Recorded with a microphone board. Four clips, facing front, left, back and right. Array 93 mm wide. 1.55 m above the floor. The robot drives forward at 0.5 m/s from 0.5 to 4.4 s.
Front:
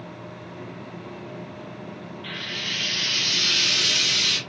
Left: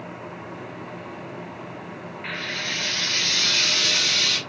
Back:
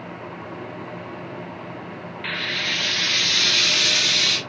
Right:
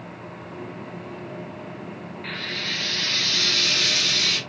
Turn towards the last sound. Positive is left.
turn(degrees=175)